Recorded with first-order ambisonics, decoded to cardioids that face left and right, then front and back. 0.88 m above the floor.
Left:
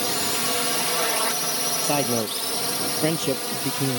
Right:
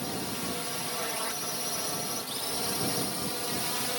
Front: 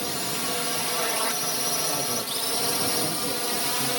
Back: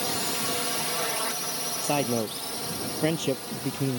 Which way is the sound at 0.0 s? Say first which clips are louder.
Left 10 dB, even; 90° left.